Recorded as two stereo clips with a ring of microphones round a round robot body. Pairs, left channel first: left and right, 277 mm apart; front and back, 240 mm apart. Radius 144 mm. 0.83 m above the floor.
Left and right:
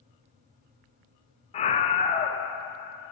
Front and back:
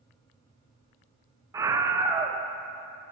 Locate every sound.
1.5 s a scream: 120° left, 0.5 m